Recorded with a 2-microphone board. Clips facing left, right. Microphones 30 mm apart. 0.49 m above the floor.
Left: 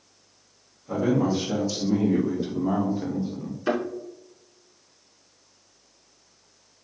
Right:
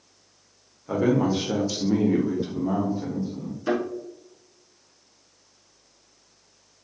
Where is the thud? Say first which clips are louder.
Even; 15° left (ahead or behind), 1.6 m.